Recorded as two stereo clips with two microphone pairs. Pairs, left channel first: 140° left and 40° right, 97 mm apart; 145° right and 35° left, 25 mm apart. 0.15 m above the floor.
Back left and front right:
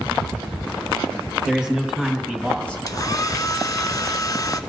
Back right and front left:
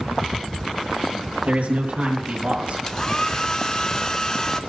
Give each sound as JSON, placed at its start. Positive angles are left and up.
{"t": 1.5, "sound": "a man speaking", "azimuth_deg": 50, "distance_m": 3.5}
{"t": 2.9, "sound": "a hair dryer", "azimuth_deg": 170, "distance_m": 0.6}